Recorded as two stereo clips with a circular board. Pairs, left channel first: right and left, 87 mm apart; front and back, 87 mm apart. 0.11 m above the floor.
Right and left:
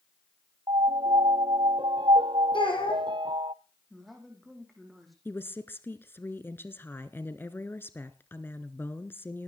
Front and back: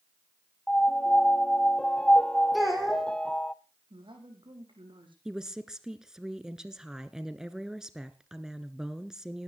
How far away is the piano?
About 0.5 m.